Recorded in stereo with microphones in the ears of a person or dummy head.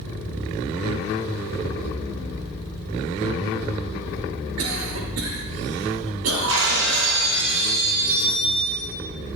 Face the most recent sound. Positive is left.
turn(degrees=-65)  # may be behind; listen again after turning